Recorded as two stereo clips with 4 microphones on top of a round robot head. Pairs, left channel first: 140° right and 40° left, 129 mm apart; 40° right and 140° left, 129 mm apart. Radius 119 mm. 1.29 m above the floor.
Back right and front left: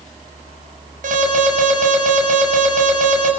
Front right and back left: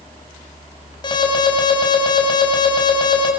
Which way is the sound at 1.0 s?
15° left.